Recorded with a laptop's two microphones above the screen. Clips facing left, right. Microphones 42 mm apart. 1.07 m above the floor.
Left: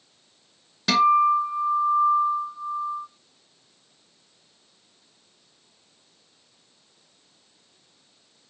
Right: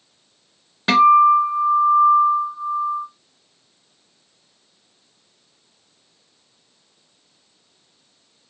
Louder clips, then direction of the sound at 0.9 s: Right 6 dB; 30° right (ahead or behind).